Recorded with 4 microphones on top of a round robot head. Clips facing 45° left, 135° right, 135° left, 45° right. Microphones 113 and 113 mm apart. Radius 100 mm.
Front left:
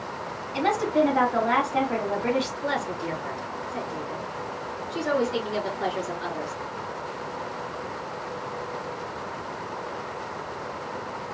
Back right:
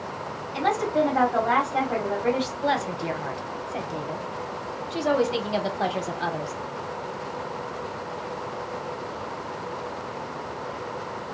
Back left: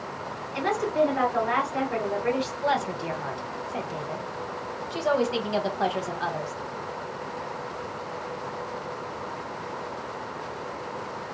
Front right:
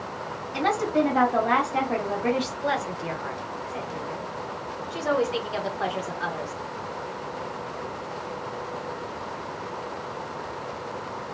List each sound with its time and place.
0.5 s a woman speaking: 50° right, 1.4 m
2.6 s a woman speaking: 155° right, 1.0 m